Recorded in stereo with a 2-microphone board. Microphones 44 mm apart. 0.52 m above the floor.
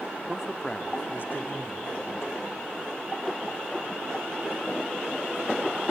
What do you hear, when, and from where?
0.3 s a man speaking: 25° right (ahead or behind), 0.9 m; by 2.5 s 70° left (ahead or behind), 3 m